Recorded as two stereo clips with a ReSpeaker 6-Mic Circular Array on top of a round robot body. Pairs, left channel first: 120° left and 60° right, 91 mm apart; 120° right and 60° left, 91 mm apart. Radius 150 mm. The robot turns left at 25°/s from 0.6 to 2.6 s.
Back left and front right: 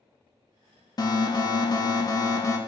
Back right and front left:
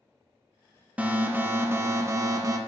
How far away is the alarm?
About 1.3 m.